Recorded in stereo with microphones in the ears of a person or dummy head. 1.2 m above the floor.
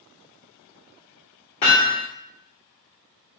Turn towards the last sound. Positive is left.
turn(degrees=30)  # may be behind; listen again after turning